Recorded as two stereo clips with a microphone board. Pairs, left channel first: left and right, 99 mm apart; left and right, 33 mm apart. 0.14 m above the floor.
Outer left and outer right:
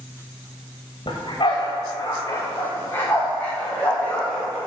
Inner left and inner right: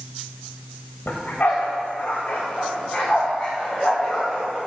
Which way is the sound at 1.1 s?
55° left (ahead or behind).